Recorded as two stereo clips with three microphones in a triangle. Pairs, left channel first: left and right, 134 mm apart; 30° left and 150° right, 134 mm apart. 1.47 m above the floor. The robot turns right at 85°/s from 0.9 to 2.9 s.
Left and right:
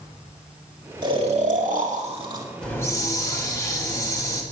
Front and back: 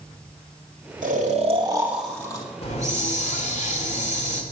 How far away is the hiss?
About 1.9 m.